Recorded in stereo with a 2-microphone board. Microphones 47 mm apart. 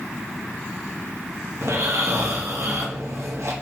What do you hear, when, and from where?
1.6 s snoring: 70° right (ahead or behind), 1.7 m